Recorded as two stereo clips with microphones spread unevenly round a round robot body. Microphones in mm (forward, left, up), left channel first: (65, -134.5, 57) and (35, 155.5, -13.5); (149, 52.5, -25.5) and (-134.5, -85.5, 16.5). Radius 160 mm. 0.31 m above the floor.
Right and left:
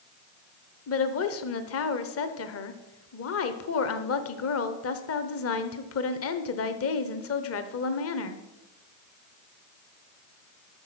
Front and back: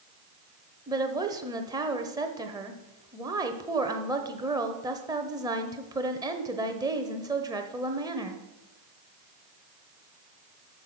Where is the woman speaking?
70° right, 0.9 m.